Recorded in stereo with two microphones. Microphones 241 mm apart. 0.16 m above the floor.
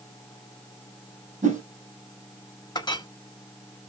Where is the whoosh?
30° right (ahead or behind), 2.5 m.